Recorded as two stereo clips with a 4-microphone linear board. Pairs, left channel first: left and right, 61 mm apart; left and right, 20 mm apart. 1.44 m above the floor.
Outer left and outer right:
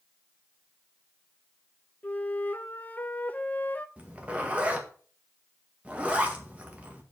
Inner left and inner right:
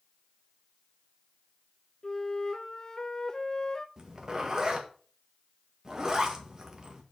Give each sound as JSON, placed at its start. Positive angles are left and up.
{"t": 2.0, "sound": "a flute", "side_deg": 25, "distance_m": 0.6}
{"t": 4.0, "sound": "a zipper", "side_deg": -20, "distance_m": 1.7}